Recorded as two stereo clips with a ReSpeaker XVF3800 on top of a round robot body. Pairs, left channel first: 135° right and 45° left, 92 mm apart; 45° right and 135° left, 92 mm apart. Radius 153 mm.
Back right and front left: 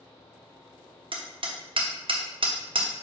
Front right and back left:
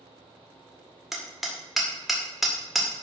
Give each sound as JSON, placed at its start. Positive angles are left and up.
{"t": 1.1, "sound": "hammering", "azimuth_deg": 50, "distance_m": 1.9}